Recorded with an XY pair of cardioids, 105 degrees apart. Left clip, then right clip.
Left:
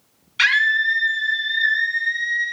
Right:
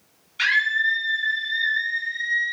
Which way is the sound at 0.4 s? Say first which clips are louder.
Left 3 dB; 65° left.